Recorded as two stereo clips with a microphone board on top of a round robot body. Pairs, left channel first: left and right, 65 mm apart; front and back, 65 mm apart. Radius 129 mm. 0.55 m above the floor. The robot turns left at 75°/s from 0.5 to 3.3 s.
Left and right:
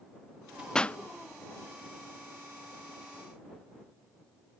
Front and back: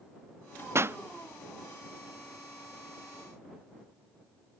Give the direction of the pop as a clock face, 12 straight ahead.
7 o'clock.